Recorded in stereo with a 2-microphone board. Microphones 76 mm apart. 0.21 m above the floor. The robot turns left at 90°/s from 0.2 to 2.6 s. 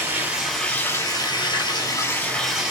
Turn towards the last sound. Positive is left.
turn(degrees=-10)